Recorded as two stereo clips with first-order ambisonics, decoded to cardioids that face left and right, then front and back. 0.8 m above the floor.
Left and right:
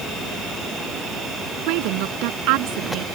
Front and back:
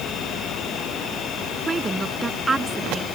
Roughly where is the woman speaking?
Right.